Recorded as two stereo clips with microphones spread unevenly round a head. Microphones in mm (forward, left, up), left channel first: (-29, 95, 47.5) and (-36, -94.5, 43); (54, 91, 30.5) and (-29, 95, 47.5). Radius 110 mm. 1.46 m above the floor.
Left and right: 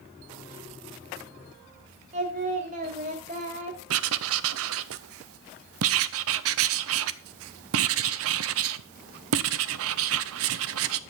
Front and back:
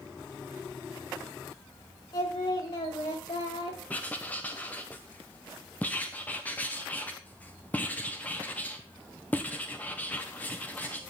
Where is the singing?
50° right, 1.5 m.